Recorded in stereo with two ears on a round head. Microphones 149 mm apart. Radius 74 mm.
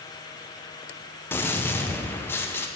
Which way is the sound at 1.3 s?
15° left (ahead or behind).